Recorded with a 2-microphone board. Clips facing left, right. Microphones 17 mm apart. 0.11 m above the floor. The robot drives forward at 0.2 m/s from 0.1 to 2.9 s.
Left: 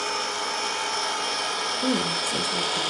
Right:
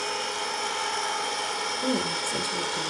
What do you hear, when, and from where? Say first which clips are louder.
0.0 s an engine running: left 2 dB; 25° left (ahead or behind), 1.3 m; by 2.9 s 35° left (ahead or behind), 0.8 m
1.8 s a woman speaking: left 3 dB; 25° left (ahead or behind), 1.7 m